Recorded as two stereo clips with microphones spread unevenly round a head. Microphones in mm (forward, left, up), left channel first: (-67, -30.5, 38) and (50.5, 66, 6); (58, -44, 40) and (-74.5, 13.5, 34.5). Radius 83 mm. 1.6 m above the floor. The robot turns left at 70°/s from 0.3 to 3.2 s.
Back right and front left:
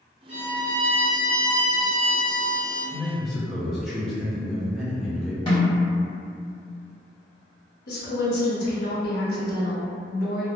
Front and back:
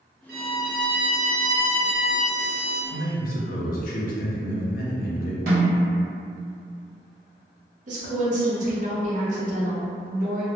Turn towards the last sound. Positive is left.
turn(degrees=-165)